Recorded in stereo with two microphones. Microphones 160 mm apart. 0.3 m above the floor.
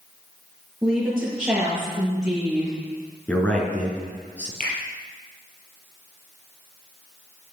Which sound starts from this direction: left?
A finger snap, at 4.6 s.